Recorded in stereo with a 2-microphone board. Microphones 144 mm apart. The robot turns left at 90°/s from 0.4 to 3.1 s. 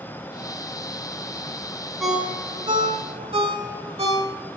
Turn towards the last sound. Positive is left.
turn(degrees=-45)  # may be behind; listen again after turning